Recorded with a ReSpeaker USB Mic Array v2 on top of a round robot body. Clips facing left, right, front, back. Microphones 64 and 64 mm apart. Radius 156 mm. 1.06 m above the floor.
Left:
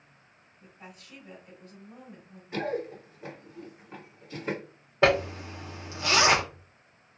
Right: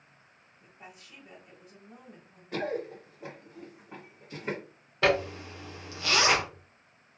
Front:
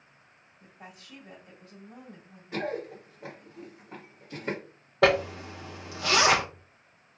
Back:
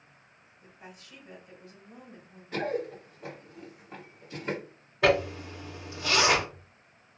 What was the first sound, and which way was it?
A woman speaking, 10° right.